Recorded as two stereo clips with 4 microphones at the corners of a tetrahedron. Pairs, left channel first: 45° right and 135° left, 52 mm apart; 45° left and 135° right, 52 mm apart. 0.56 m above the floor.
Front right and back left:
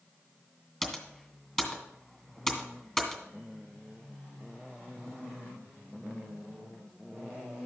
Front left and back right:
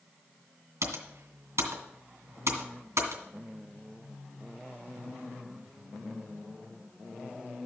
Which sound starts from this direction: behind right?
Typing on a keyboard, at 0.8 s.